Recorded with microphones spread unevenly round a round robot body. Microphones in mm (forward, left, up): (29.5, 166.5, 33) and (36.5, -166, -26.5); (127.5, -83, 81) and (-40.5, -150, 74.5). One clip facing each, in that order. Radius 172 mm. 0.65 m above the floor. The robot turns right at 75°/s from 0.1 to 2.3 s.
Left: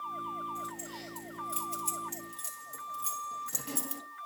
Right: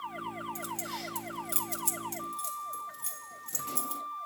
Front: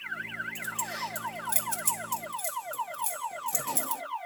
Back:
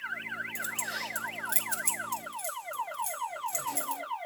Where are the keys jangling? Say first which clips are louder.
Right 3 dB, front 4 dB; 135° right, 3 m; by 4.0 s straight ahead, 3 m.